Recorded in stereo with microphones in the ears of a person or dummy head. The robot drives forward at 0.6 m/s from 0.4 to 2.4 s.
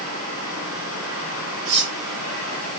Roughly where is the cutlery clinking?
Right.